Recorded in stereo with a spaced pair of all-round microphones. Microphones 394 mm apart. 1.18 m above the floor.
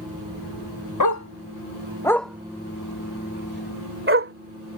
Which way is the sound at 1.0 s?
50° left (ahead or behind).